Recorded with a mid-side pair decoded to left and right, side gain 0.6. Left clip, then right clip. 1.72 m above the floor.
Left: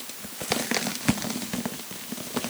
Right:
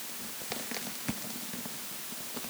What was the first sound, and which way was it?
Only background noise.